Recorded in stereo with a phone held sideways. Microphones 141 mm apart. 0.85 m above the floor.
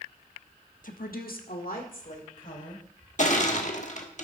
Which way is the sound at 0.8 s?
65° left (ahead or behind).